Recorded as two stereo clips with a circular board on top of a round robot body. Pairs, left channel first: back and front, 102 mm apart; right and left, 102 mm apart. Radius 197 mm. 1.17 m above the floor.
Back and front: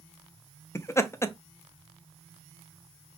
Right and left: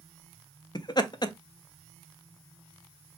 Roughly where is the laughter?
Behind right.